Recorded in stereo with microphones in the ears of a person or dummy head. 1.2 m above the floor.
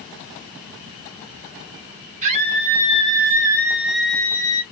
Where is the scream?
35° right (ahead or behind), 2 m; by 4.6 s 25° left (ahead or behind), 1.0 m.